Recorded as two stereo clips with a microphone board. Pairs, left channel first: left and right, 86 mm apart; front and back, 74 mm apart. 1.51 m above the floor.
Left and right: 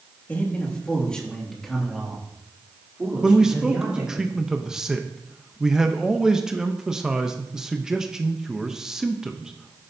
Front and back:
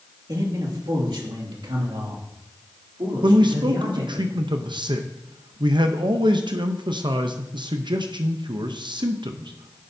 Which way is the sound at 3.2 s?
175° right.